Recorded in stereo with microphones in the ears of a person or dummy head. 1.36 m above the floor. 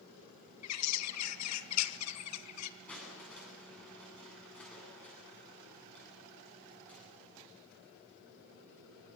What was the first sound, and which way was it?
A bird, 80° left.